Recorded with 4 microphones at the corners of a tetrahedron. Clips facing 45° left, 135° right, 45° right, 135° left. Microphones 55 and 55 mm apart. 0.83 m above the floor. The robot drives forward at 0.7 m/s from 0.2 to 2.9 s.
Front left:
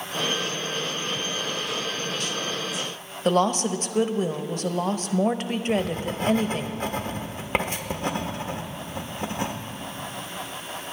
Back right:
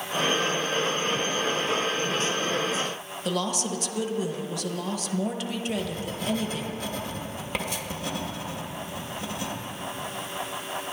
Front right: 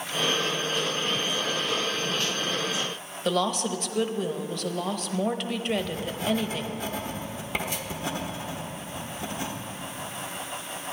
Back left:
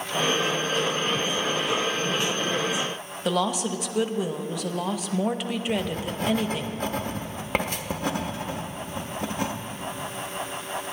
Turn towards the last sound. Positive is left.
turn(degrees=95)